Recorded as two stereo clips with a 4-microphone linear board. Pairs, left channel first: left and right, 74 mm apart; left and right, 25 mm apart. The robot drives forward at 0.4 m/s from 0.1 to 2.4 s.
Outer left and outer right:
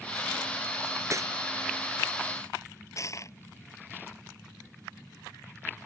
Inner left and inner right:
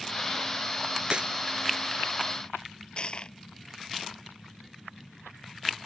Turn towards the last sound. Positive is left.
turn(degrees=45)  # may be behind; listen again after turning